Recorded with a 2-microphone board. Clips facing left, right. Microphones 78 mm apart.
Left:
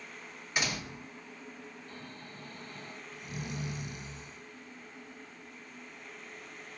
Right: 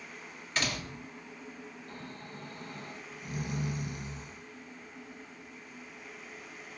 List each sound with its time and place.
0.6 s a door slam: 15° left (ahead or behind), 0.7 m
1.9 s snoring: 35° right (ahead or behind), 0.9 m